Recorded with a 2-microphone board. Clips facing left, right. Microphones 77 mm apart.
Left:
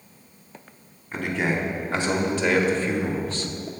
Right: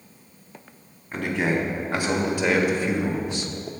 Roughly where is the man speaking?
Centre.